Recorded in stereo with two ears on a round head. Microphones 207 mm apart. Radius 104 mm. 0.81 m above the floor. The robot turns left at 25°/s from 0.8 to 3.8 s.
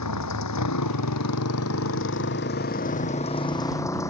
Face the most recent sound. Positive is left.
turn(degrees=15)